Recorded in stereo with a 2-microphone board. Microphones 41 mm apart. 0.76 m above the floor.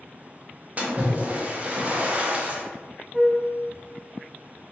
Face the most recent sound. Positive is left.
turn(degrees=-5)  # may be behind; listen again after turning